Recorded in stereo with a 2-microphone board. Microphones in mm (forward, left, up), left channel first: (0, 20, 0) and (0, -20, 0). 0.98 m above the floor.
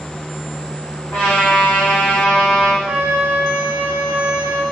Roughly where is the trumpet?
Left.